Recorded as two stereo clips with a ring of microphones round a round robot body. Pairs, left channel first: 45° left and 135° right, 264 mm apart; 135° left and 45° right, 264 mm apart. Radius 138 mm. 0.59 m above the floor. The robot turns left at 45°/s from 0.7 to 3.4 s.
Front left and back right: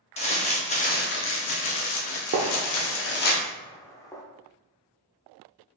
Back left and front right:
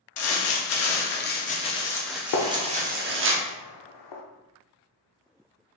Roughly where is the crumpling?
Left.